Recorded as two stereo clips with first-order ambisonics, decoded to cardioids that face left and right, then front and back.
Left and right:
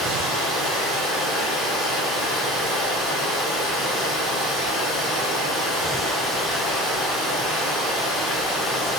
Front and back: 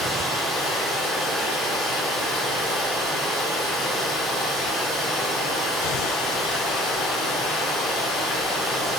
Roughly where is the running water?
Ahead right.